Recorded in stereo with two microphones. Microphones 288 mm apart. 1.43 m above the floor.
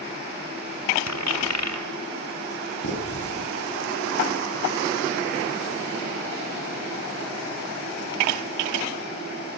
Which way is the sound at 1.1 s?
65° left (ahead or behind).